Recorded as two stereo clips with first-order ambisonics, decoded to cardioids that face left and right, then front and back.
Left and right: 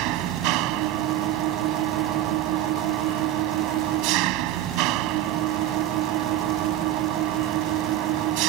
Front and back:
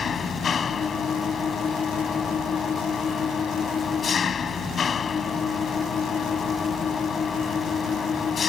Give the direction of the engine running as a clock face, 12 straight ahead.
2 o'clock.